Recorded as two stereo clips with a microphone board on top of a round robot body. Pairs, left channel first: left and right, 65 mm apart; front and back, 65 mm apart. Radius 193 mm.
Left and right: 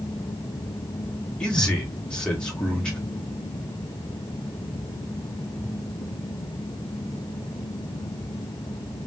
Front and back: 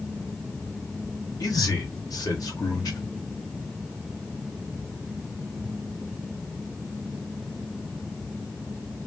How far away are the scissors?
I don't hear scissors.